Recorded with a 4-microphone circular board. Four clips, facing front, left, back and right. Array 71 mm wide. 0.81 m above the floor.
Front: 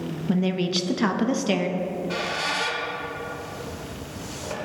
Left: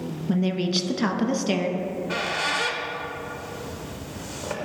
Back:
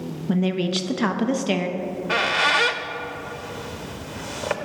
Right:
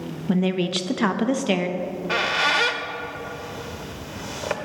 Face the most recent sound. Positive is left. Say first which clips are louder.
# right 3 dB, back 3 dB
turn(degrees=-145)